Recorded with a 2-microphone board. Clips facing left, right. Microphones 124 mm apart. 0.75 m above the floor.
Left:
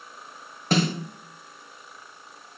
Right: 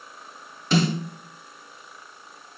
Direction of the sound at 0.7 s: 50° left (ahead or behind).